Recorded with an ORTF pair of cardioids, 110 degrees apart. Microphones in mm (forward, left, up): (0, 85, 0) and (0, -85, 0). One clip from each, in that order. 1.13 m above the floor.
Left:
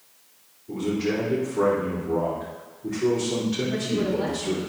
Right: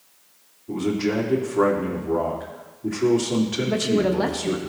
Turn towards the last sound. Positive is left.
turn(degrees=-65)